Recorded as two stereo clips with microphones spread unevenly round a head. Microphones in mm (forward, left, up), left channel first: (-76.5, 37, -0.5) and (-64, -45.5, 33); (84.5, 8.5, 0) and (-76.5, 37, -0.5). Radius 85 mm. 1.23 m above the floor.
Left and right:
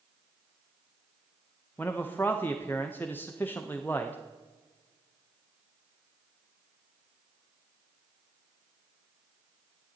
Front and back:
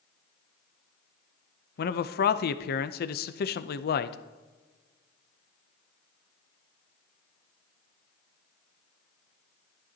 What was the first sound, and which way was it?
A man speaking, 20° left.